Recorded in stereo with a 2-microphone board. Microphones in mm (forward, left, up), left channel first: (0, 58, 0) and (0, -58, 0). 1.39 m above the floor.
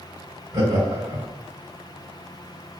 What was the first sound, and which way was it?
Laughter, 40° right (ahead or behind).